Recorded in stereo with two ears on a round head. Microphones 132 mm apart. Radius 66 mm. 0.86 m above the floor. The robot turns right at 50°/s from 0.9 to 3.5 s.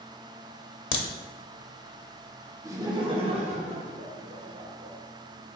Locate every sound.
0.9 s a crack: 35° left (ahead or behind), 0.7 m
2.6 s laughter: 155° right, 0.9 m; by 5.0 s 110° right, 0.9 m